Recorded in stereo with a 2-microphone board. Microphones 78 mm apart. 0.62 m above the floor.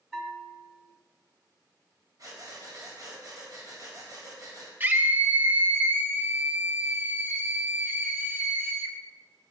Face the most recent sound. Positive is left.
turn(degrees=-25)  # may be behind; listen again after turning